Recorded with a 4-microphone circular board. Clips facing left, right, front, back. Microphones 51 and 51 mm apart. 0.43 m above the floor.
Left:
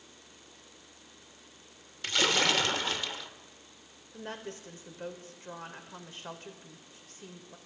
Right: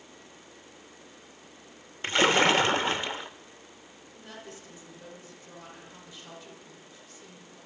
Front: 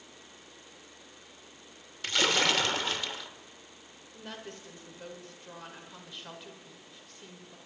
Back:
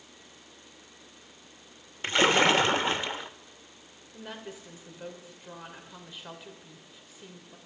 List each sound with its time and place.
2.0 s a splash: 135° right, 0.5 m
4.1 s a woman speaking: 100° left, 1.9 m